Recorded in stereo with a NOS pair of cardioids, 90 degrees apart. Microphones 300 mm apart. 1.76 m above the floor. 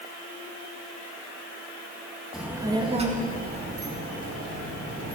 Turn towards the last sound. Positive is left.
turn(degrees=-45)